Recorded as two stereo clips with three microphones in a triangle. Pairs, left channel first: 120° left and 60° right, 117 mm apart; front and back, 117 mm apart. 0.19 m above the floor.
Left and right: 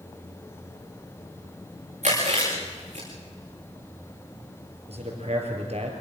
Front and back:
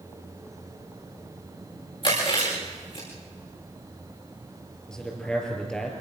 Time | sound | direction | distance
2.0 | chewing | 45° right | 9 m
4.9 | a man speaking | 85° right | 5 m